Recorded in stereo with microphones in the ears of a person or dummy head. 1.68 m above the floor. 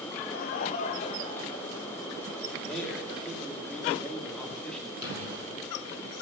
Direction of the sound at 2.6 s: 5° left (ahead or behind).